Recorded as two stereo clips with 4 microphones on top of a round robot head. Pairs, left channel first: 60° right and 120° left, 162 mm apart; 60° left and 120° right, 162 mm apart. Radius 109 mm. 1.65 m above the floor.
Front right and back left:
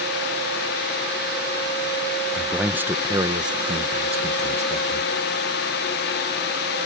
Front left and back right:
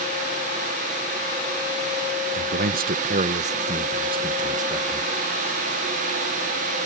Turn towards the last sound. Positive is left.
turn(degrees=165)